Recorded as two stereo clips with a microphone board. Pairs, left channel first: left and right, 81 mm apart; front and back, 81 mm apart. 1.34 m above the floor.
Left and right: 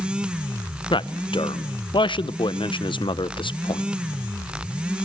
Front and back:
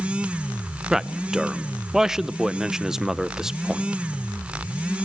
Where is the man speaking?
95° left, 0.6 m.